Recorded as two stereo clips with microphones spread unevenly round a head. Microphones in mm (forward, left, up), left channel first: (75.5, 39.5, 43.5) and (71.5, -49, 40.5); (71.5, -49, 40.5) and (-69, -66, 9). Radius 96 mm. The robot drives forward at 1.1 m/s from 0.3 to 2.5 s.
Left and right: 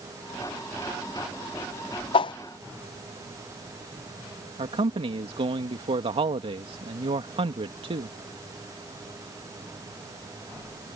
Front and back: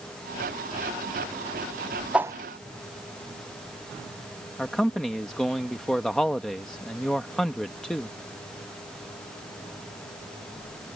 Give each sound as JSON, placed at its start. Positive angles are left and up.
{"t": 2.1, "sound": "a whoosh", "azimuth_deg": 105}
{"t": 4.6, "sound": "a man speaking", "azimuth_deg": -75}